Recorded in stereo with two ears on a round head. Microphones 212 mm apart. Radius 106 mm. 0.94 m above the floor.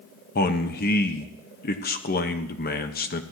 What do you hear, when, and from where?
0.3 s a man speaking: 40° left (ahead or behind), 1.2 m